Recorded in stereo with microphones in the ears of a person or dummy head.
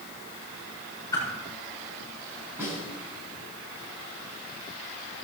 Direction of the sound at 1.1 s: 15° left (ahead or behind).